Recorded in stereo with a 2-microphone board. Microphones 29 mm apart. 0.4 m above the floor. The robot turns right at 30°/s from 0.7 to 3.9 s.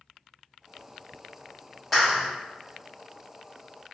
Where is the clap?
5° left (ahead or behind), 1.2 m; by 2.3 s 5° right (ahead or behind), 1.2 m.